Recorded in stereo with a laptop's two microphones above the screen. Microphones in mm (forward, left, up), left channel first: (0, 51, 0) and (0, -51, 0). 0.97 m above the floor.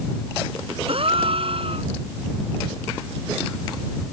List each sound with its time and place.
0.9 s a gasp: 60° right (ahead or behind)